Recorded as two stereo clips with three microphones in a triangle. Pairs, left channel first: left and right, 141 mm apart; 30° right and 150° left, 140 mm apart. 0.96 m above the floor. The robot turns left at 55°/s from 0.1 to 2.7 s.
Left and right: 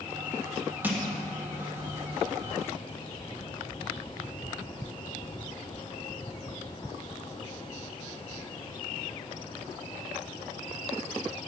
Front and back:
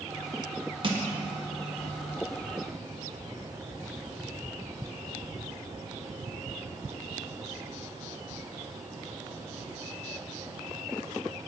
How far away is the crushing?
About 1.6 m.